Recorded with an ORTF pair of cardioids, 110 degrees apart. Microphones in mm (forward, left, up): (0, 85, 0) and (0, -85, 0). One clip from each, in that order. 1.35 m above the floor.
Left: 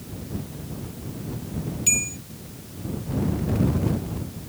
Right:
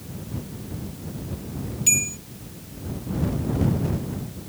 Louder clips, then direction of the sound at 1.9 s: Right 2 dB; 5° right.